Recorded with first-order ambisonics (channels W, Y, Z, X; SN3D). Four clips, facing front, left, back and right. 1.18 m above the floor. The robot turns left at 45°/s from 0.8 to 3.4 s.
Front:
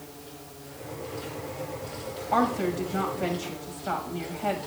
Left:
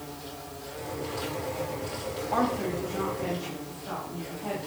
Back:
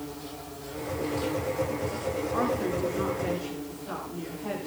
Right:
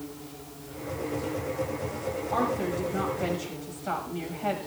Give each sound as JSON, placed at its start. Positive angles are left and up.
{"t": 0.0, "sound": "an insect", "azimuth_deg": 130, "distance_m": 9.0}
{"t": 2.3, "sound": "a woman speaking", "azimuth_deg": 10, "distance_m": 6.0}